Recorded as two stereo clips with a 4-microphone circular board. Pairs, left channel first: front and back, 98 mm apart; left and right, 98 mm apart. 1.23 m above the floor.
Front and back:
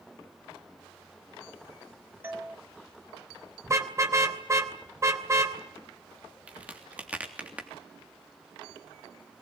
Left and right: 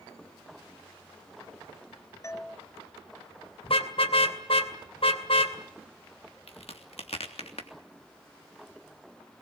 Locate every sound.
2.2 s a doorbell: 125° left, 1.0 m
3.6 s a car horn: 115° left, 2.5 m
6.5 s a crack: 105° left, 3 m